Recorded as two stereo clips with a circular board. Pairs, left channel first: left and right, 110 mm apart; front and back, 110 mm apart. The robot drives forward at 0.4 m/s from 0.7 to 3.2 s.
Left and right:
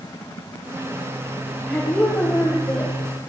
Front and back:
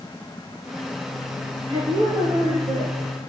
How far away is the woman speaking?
About 6 m.